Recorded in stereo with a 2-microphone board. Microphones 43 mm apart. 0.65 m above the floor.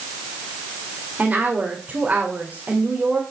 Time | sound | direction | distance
1.2 | a woman speaking | 25° right (ahead or behind) | 2 m